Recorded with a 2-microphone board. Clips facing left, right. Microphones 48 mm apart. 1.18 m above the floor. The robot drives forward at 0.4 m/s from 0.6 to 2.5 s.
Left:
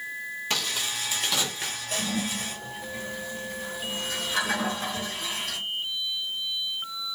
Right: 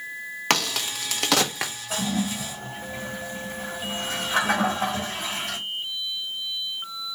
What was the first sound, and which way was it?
A crack, 70° right (ahead or behind).